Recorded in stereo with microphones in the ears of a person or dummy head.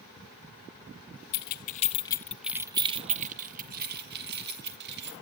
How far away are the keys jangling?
About 1.0 m.